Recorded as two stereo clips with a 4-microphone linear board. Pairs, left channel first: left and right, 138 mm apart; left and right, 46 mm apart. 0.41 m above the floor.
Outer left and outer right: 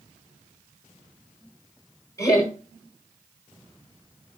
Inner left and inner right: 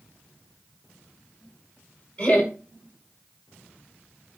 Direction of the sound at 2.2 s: 25° left (ahead or behind).